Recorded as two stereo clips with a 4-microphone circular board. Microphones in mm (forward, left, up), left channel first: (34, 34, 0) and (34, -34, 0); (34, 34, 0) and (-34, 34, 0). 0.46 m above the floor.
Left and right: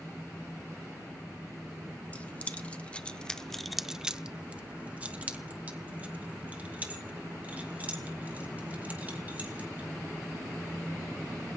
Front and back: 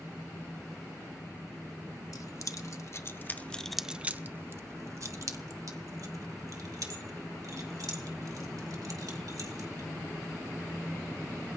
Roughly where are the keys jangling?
Ahead left.